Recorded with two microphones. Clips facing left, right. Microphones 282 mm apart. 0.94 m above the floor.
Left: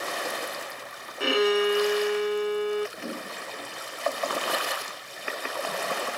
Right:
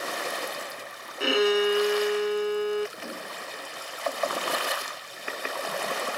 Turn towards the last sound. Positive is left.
turn(degrees=25)  # may be behind; listen again after turning